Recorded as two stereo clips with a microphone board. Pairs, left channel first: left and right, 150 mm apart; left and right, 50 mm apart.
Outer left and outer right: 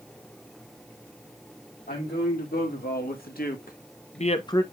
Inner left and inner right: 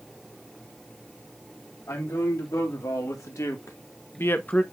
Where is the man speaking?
75° left (ahead or behind), 2.5 m; by 4.6 s 15° left (ahead or behind), 0.5 m.